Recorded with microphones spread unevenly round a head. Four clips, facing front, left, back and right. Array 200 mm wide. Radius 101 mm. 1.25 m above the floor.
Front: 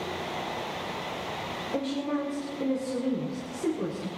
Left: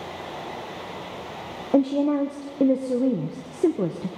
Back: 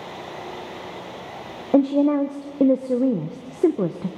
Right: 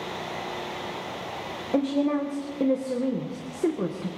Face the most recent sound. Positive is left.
turn(degrees=160)